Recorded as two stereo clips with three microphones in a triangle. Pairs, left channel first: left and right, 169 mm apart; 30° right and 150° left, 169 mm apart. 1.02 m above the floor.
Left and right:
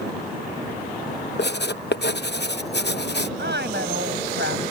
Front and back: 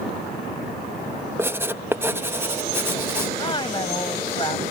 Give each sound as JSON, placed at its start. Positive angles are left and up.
{"t": 1.4, "sound": "writing", "azimuth_deg": 75}
{"t": 3.4, "sound": "a woman speaking", "azimuth_deg": -95}